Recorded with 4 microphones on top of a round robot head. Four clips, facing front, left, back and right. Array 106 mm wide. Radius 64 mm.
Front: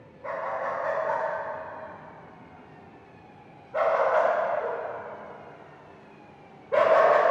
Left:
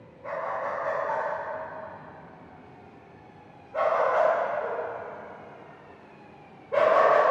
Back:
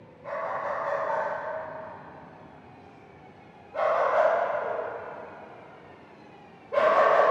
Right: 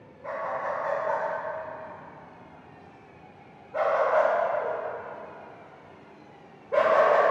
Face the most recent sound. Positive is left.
turn(degrees=-20)